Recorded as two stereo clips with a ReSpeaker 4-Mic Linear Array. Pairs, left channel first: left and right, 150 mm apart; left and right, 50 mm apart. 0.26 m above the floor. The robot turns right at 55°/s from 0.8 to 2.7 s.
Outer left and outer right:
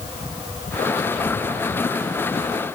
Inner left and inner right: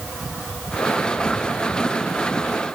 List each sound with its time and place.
Only background noise.